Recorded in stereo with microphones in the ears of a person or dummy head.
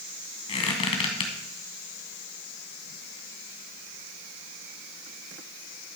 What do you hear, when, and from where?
0.5 s a squeak: 30° left (ahead or behind), 2 m